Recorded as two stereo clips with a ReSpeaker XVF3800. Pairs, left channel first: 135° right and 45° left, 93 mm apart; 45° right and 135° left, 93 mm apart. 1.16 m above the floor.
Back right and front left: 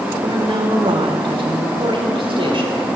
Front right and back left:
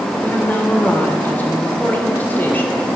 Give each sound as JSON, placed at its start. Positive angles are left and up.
{"t": 0.2, "sound": "a woman speaking", "azimuth_deg": 25, "distance_m": 3.5}